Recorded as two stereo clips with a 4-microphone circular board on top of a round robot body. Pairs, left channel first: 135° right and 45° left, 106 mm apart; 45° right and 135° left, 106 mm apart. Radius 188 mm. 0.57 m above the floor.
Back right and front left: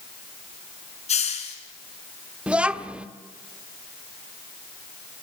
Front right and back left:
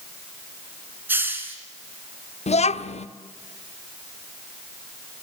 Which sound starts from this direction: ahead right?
A child speaking, at 2.5 s.